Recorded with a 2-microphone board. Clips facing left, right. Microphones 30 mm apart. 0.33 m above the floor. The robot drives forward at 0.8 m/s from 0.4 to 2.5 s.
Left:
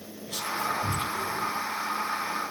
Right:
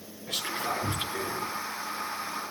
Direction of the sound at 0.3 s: 50° right (ahead or behind).